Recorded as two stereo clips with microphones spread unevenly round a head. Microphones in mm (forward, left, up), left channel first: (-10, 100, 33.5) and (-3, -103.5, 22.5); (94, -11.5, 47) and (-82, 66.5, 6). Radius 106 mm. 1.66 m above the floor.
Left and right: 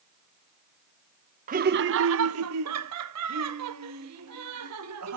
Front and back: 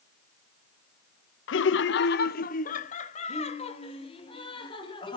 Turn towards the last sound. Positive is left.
turn(degrees=-90)